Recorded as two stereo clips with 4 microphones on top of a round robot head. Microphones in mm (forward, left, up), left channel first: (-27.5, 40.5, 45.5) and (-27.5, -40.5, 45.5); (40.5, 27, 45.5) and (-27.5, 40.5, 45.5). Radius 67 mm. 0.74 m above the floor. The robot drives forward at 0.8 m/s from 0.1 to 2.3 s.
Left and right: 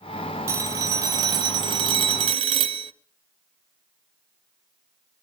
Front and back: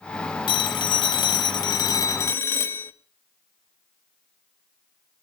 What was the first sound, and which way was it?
A phone ringing, 30° right.